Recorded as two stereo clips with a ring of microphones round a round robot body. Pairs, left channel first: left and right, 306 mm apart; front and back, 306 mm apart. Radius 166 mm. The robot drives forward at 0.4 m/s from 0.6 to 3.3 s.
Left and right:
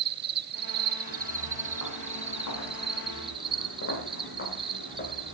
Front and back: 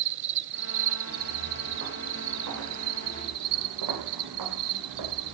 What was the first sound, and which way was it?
An insect, 140° right.